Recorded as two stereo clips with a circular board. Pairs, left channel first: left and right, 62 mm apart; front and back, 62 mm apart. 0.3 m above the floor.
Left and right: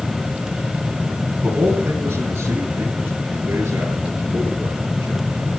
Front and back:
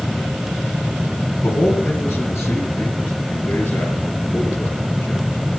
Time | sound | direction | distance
1.4 | a man speaking | 45° right | 2.5 m